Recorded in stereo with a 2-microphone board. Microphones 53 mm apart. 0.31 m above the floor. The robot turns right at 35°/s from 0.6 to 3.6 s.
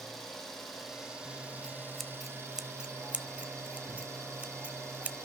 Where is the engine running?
175° left, 4 m; by 5.3 s 80° right, 4 m.